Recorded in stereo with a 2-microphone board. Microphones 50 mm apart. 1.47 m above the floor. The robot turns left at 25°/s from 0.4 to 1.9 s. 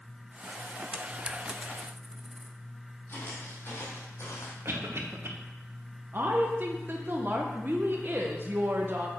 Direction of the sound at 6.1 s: 40° right (ahead or behind).